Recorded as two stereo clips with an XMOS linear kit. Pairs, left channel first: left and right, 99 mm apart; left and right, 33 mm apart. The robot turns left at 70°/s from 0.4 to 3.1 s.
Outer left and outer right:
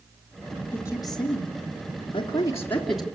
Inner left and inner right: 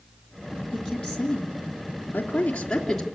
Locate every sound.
0.7 s a woman speaking: 20° left (ahead or behind), 3.5 m; by 3.0 s 5° right (ahead or behind), 3.5 m